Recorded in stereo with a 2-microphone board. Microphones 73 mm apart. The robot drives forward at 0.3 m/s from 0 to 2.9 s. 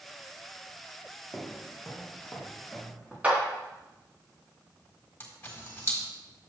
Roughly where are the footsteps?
Centre.